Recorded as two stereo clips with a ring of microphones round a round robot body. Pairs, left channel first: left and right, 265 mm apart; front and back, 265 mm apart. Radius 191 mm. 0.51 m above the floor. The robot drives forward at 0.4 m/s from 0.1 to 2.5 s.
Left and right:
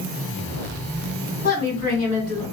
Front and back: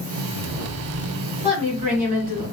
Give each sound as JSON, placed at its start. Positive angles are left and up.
{"t": 1.4, "sound": "a woman speaking", "azimuth_deg": 115, "distance_m": 1.8}